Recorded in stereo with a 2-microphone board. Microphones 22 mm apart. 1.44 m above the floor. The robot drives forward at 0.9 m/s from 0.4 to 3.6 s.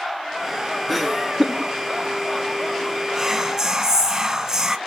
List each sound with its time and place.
0.9 s laughter: centre (ahead or behind), 0.5 m
3.1 s whispering: 20° right (ahead or behind), 1.8 m; by 4.8 s 25° right (ahead or behind), 1.4 m